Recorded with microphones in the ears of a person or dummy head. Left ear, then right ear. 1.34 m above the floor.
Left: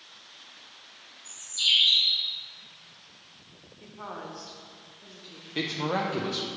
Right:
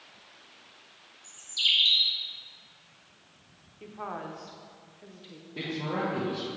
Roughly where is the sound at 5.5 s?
Left.